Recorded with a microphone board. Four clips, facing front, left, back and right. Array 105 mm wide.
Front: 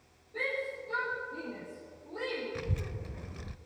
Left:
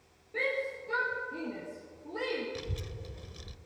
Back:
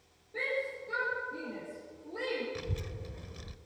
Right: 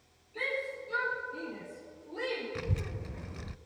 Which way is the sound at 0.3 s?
100° left.